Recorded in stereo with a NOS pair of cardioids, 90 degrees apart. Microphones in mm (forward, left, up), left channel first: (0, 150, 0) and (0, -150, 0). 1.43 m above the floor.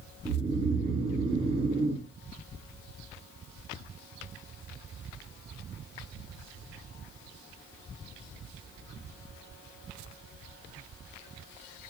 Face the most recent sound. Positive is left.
turn(degrees=-20)